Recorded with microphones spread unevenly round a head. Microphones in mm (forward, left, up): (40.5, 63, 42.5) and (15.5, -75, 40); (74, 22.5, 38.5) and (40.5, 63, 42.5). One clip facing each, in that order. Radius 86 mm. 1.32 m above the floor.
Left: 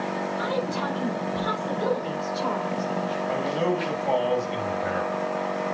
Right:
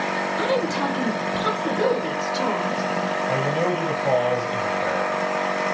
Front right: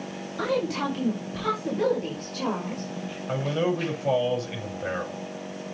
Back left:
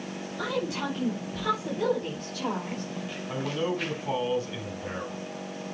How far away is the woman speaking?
About 5.5 m.